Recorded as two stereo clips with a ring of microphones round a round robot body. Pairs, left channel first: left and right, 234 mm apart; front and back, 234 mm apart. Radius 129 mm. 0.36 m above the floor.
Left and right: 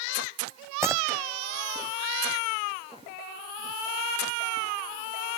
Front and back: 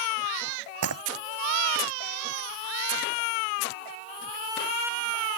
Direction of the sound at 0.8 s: 170° right.